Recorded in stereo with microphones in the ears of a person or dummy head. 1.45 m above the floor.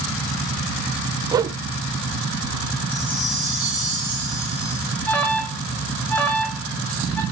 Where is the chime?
5° right (ahead or behind), 9.5 m.